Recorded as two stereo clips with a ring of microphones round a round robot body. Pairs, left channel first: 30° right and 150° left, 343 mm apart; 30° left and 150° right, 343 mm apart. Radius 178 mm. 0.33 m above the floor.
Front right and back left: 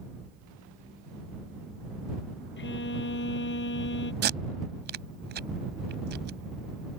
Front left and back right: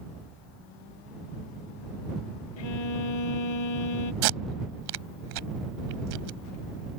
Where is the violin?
30° left.